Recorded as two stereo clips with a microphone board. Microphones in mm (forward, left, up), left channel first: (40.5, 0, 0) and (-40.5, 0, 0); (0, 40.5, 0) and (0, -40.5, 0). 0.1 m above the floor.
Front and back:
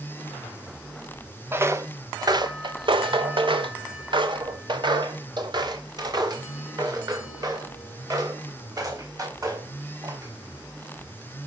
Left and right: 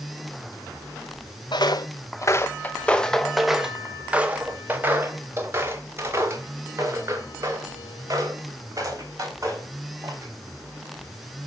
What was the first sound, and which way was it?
Footsteps, 115° left.